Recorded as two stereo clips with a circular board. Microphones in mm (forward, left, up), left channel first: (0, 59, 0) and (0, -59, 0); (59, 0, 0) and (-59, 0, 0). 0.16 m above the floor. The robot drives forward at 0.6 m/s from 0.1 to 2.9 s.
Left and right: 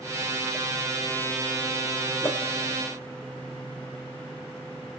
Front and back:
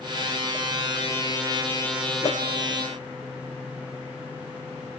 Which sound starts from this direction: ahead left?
A whoosh, at 2.2 s.